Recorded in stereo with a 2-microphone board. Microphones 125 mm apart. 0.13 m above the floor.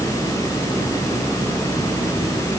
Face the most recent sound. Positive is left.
No sound to turn to.